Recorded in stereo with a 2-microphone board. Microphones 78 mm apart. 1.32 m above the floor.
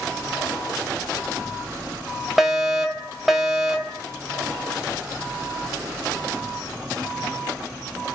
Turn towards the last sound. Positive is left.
turn(degrees=-5)  # may be behind; listen again after turning